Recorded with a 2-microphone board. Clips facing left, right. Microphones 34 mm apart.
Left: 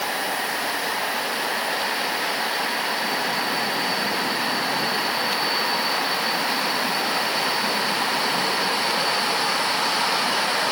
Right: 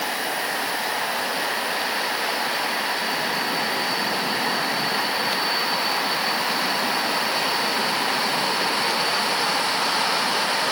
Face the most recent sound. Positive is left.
No sound to turn to.